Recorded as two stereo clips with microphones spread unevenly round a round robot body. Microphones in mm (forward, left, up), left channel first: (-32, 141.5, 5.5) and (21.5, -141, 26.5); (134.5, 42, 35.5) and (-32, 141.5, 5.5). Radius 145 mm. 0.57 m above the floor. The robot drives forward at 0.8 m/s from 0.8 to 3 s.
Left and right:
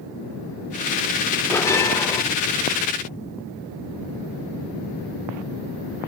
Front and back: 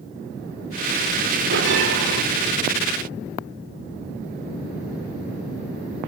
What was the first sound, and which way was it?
A bell, straight behind.